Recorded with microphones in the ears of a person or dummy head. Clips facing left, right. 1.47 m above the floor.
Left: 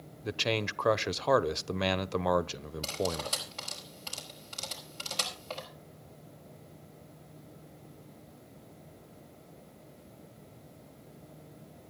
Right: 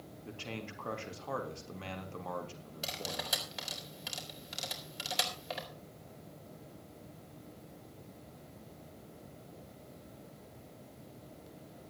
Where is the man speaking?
70° left (ahead or behind), 0.7 m.